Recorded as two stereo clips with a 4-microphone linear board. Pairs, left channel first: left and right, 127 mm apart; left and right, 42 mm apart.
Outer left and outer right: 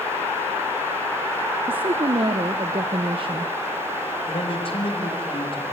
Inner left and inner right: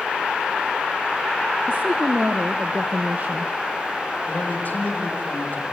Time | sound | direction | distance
1.7 | a woman speaking | 45° right (ahead or behind) | 0.9 m
4.3 | a man speaking | 45° left (ahead or behind) | 5.5 m